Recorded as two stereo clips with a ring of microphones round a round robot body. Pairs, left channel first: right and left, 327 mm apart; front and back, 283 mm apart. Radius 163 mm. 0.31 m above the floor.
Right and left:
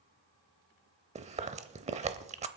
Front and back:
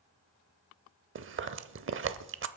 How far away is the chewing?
About 0.7 m.